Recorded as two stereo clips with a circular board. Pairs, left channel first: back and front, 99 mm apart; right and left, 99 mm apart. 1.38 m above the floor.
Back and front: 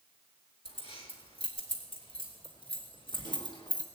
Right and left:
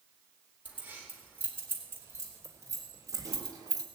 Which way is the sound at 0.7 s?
165° left.